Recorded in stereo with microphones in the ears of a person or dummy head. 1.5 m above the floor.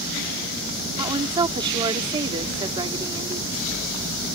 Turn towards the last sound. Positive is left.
turn(degrees=-25)  # may be behind; listen again after turning